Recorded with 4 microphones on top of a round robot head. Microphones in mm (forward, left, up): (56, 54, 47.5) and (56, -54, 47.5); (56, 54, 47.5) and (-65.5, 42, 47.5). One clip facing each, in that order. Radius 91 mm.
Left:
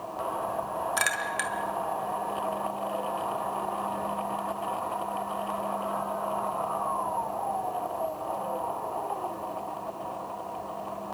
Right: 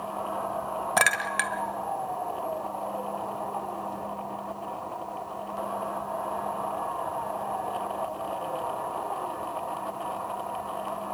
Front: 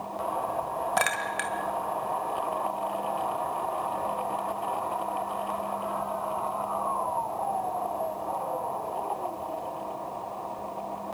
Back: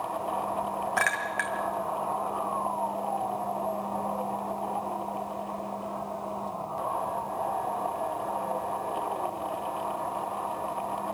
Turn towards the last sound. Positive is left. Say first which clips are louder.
# right 4 dB, front 1 dB
turn(degrees=-65)